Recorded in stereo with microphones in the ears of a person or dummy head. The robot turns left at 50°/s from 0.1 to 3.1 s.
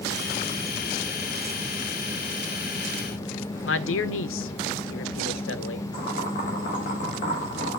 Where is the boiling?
45° left (ahead or behind), 4 m.